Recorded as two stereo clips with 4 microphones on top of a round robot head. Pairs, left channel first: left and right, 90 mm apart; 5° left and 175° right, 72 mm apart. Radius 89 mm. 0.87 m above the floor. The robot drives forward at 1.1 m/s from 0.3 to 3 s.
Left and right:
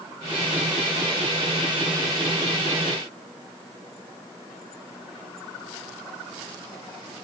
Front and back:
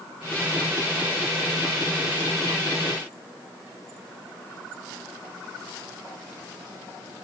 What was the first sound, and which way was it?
Only background noise.